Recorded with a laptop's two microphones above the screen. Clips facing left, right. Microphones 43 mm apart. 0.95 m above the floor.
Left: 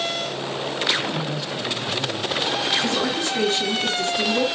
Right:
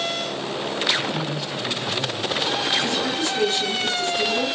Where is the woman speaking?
45° left (ahead or behind), 1.8 m.